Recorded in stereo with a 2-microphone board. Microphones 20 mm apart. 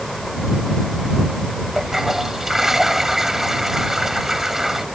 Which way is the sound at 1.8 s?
20° right (ahead or behind).